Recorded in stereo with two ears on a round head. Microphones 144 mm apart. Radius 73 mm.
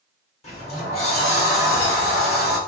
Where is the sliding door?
45° left (ahead or behind), 2.0 m.